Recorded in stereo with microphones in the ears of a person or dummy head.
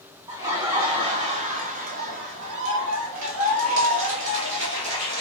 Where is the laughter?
15° right (ahead or behind), 1.7 m; by 5.2 s 60° right (ahead or behind), 2.0 m.